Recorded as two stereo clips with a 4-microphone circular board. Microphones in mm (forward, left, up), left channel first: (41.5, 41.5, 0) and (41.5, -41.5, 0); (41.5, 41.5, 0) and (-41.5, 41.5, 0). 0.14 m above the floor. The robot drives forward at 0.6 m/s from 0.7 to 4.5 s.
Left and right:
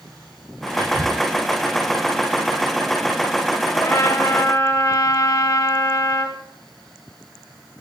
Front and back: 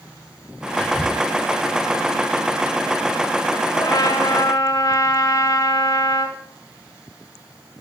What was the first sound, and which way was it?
Whispering, 65° right.